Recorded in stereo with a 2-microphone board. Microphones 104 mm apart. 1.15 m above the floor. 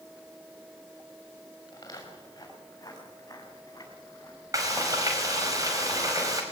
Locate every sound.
1.7 s footsteps: 35° left (ahead or behind), 7 m
4.5 s frying: 35° right (ahead or behind), 5 m